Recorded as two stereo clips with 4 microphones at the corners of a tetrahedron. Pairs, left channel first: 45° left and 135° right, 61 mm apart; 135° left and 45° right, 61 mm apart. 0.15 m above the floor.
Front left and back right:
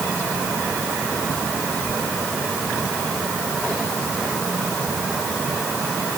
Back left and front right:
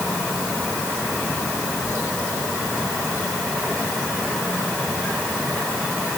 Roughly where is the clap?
I don't hear a clap.